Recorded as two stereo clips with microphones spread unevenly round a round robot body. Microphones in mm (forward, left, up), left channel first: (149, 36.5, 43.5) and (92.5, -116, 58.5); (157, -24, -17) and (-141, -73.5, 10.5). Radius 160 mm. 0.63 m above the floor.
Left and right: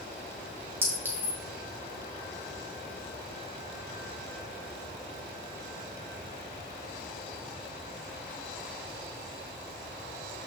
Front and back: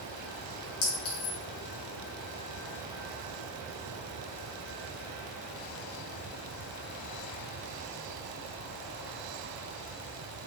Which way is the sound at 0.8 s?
35° right.